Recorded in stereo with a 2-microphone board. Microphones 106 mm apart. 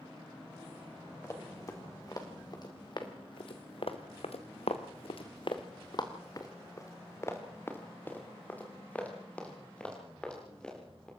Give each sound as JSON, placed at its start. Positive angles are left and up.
{"t": 1.2, "sound": "running footsteps", "side_deg": 30, "distance_m": 4.0}